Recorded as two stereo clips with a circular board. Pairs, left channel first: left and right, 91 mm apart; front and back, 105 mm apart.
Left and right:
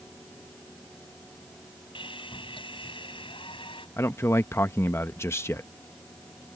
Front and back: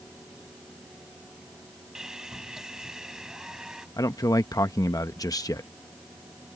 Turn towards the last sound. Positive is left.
turn(degrees=40)